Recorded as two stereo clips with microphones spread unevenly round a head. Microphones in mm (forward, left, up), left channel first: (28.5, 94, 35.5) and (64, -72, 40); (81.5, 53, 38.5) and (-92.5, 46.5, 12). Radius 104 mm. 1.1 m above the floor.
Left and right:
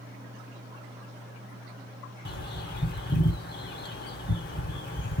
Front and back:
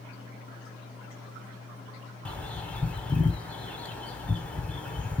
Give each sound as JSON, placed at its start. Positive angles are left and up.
{"t": 2.2, "sound": "a bird", "azimuth_deg": 80, "distance_m": 2.0}